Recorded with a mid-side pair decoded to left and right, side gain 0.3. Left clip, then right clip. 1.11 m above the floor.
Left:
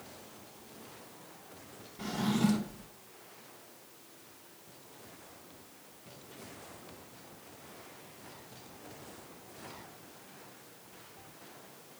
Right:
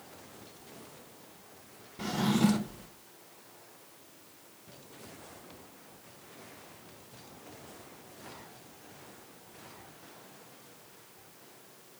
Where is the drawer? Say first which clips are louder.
Right 3 dB; 40° right, 0.7 m.